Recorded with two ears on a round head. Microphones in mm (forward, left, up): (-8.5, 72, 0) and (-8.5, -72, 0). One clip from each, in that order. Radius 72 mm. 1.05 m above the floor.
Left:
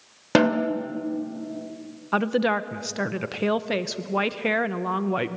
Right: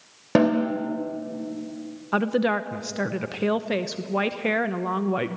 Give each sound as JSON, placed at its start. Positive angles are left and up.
{"t": 0.3, "sound": "a snare drum", "side_deg": 70, "distance_m": 2.5}
{"t": 2.1, "sound": "a woman speaking", "side_deg": 15, "distance_m": 0.9}